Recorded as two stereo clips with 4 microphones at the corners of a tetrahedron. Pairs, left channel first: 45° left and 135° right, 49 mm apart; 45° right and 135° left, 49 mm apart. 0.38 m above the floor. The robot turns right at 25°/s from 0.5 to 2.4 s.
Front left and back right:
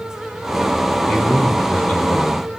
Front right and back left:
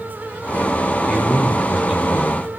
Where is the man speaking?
20° left, 1.2 m; by 2.5 s 55° left, 1.2 m.